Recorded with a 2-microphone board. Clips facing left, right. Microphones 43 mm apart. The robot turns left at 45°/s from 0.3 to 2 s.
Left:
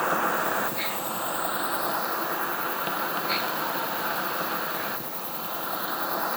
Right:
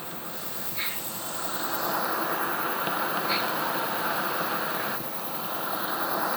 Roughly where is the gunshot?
I don't hear a gunshot.